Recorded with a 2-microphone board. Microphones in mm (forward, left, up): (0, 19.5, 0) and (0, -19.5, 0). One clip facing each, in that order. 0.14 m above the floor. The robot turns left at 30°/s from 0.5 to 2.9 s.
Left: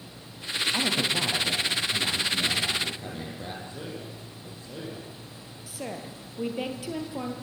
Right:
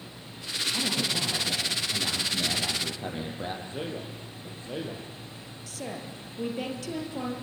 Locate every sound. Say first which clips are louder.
0.7 s a man speaking: left 2 dB; 40° left, 6 m; by 3.5 s 25° right, 6 m
3.6 s a man speaking: right 3 dB; 40° right (ahead or behind), 6 m
5.7 s a woman speaking: left 1 dB; 10° left (ahead or behind), 3.5 m